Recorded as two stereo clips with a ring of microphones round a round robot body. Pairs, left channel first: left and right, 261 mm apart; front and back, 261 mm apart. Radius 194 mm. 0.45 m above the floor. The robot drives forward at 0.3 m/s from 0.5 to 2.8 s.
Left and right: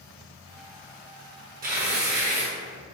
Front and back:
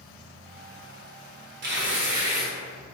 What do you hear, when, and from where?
1.6 s tearing paper: 140° right, 1.0 m; by 2.5 s 150° right, 1.2 m